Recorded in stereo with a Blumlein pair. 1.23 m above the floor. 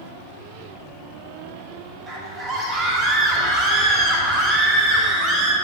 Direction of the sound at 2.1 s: 20° right.